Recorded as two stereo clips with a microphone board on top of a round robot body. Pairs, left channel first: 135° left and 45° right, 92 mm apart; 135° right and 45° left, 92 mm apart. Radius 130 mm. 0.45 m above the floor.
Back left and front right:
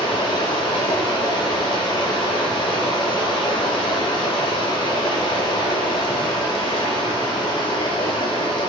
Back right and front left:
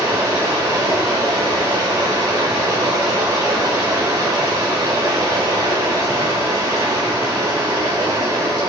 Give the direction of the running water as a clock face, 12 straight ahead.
9 o'clock.